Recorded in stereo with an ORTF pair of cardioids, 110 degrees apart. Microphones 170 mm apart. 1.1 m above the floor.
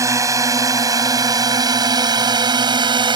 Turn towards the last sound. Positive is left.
turn(degrees=-30)